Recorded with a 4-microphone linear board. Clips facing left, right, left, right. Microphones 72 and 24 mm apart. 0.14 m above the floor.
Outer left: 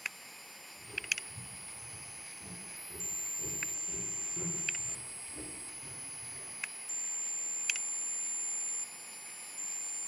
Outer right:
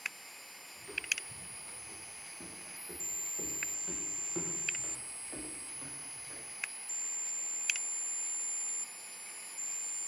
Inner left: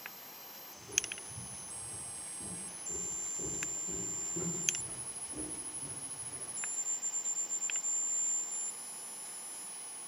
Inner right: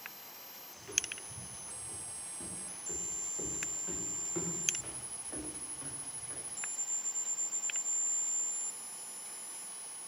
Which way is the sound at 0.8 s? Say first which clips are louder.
Even, even; 55° right (ahead or behind).